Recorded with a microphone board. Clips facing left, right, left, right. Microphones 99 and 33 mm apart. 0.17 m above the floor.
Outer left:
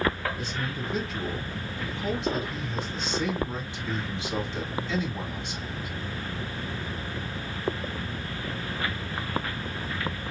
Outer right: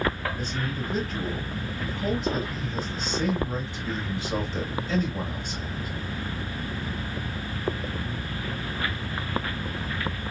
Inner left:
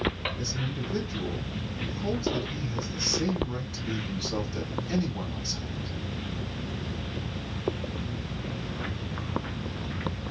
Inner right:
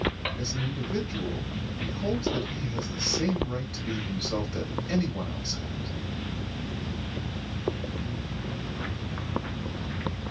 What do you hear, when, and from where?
0.4 s a man speaking: 40° right (ahead or behind), 3 m